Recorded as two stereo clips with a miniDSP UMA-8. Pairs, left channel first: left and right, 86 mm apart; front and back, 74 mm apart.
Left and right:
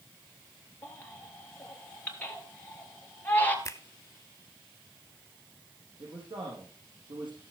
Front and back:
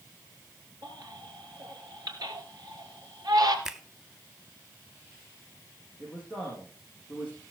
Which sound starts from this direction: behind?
A baby crying, at 0.8 s.